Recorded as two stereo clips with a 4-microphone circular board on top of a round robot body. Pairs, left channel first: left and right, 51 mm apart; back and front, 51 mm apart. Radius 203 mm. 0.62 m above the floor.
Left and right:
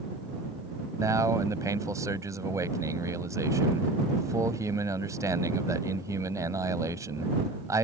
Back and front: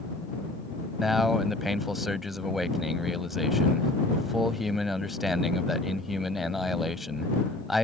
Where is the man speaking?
85° right.